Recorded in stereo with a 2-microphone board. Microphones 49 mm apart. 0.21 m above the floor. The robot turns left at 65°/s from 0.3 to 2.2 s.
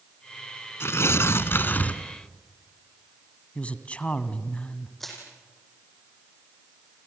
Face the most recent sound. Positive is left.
turn(degrees=5)  # may be behind; listen again after turning